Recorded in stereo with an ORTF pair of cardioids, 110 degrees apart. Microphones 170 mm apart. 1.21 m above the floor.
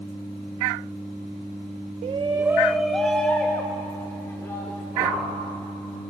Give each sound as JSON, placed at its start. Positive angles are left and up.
{"t": 2.0, "sound": "a shout", "azimuth_deg": -45, "distance_m": 0.9}
{"t": 4.9, "sound": "a whoosh", "azimuth_deg": -15, "distance_m": 7.0}